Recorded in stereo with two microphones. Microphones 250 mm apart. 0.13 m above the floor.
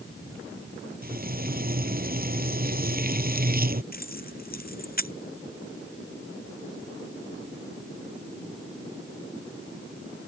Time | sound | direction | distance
1.0 | frying | 40° right (ahead or behind) | ?
3.9 | keys jangling | 35° left (ahead or behind) | ?